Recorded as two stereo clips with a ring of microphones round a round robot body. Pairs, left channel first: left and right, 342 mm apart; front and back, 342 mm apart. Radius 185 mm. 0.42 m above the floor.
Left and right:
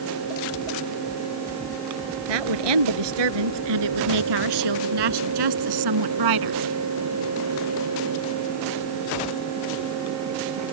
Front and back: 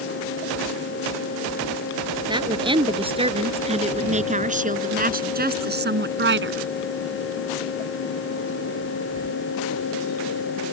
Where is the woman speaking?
105° right; by 6.6 s 125° right.